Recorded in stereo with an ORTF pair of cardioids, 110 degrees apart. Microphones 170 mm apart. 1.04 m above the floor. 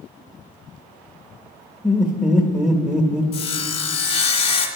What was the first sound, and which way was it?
Laughter, straight ahead.